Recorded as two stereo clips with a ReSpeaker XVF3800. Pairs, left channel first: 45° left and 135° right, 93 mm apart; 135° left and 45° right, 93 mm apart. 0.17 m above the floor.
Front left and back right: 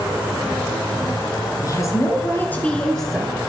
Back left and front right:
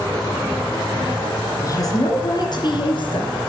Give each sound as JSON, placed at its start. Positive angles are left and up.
{"t": 1.6, "sound": "a woman speaking", "azimuth_deg": 90, "distance_m": 2.5}